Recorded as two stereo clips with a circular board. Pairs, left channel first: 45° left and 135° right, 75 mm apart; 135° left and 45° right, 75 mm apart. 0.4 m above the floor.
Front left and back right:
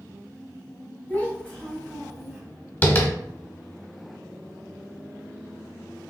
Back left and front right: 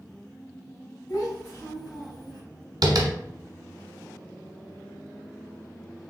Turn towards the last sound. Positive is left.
turn(degrees=-15)